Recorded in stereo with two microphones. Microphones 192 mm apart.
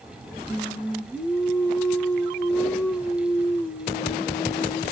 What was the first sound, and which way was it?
Singing, 10° left (ahead or behind).